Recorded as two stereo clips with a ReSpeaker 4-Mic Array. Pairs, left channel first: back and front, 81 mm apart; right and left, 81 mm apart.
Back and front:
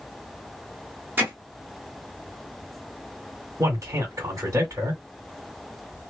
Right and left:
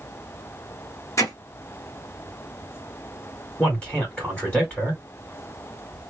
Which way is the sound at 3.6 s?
20° right.